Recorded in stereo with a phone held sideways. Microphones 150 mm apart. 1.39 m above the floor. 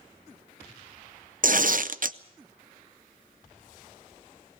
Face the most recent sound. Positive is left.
turn(degrees=-65)  # may be behind; listen again after turning